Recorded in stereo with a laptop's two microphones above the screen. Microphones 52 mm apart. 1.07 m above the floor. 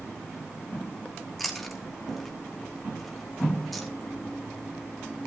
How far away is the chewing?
About 0.9 m.